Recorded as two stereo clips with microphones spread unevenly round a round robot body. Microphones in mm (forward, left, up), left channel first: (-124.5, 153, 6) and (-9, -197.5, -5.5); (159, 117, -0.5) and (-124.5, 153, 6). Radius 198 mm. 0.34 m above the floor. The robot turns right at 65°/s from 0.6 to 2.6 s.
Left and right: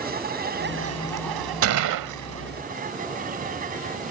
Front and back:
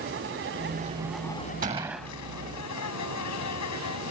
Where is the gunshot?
120° right; by 2.1 s 90° right.